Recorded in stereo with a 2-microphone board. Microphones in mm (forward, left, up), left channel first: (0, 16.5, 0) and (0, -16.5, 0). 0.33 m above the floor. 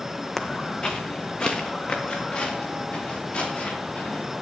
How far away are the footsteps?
About 1.3 m.